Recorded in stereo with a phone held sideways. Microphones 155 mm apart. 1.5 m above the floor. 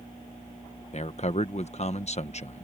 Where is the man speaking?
45° left (ahead or behind).